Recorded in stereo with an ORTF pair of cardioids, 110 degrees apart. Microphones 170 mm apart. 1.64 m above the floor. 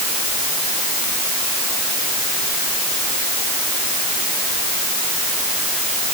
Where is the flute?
No flute in this recording.